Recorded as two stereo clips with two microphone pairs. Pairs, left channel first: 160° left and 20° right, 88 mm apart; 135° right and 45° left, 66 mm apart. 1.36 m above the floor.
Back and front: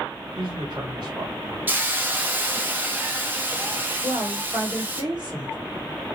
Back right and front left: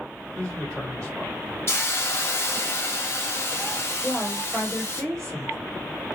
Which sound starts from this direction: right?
A hiss, at 1.7 s.